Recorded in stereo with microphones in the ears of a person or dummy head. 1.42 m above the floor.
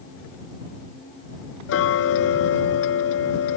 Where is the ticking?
70° left (ahead or behind).